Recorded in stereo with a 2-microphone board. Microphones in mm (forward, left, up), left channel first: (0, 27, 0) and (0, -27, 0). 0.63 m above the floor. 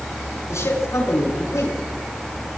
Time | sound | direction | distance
0.5 | a man speaking | 60° left (ahead or behind) | 6.5 m